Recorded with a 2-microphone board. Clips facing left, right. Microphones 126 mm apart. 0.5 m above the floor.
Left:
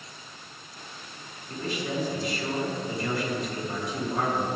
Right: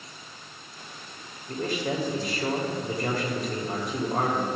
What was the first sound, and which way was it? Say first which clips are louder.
A man speaking: right 3 dB; 50° right (ahead or behind).